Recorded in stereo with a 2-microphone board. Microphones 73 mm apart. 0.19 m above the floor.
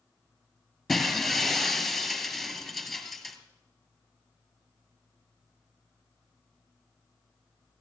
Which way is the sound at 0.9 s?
Centre (ahead or behind).